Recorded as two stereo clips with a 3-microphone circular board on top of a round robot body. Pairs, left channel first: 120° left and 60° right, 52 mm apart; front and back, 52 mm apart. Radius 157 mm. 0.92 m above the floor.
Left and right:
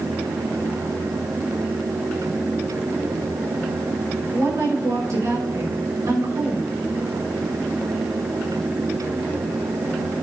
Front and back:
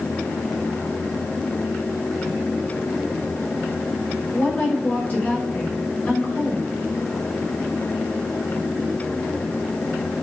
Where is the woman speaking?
60° right, 5.5 m.